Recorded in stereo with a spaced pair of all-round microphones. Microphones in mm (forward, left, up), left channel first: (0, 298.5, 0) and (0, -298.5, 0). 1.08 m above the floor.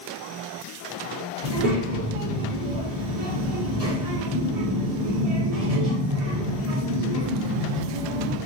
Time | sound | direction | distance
1.4 | a child speaking | 75° right (ahead or behind) | 1.5 m